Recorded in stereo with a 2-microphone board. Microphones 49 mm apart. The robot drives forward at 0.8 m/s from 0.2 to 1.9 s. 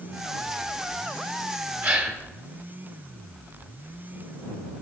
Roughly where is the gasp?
Right.